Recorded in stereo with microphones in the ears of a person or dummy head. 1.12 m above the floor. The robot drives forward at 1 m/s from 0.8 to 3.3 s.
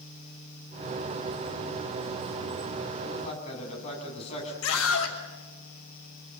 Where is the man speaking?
35° left (ahead or behind), 8 m.